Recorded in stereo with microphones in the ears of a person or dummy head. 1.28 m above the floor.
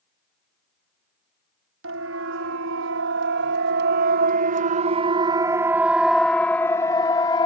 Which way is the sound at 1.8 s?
85° right.